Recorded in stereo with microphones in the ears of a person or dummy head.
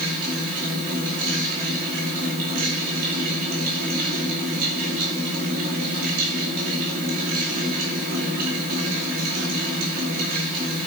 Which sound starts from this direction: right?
A fan, at 0.0 s.